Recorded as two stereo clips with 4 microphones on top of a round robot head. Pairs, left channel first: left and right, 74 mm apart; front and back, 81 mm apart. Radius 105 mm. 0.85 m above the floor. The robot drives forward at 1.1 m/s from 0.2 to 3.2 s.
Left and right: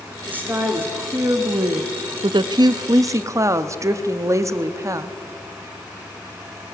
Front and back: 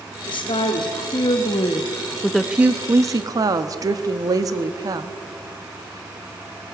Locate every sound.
0.3 s a woman speaking: 20° right, 2.5 m; by 5.1 s 140° right, 1.3 m